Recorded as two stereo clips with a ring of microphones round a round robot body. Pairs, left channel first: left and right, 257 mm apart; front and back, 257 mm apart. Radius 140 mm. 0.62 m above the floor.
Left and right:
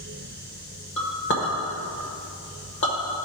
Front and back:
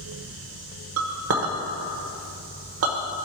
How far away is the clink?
About 1.0 m.